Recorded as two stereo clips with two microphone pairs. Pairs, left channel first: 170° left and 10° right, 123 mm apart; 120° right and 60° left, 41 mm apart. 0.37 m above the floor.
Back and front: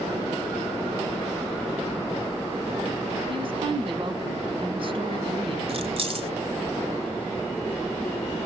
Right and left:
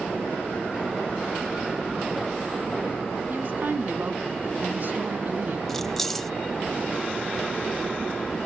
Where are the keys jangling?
40° right, 1.1 m.